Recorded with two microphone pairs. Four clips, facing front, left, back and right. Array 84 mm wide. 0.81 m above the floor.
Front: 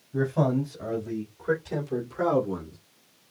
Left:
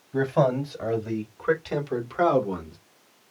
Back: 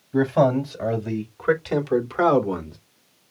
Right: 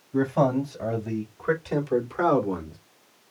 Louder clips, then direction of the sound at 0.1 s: Even, back 6 dB; 140° left.